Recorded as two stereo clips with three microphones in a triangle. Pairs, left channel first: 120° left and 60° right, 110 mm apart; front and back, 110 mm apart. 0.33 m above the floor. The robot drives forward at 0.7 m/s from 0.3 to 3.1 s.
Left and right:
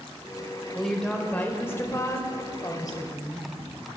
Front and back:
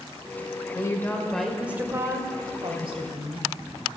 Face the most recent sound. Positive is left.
turn(degrees=165)